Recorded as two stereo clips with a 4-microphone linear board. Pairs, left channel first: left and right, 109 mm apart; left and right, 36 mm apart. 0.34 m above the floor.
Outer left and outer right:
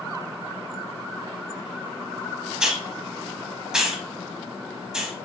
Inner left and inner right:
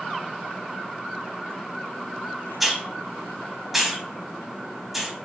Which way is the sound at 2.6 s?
10° right (ahead or behind).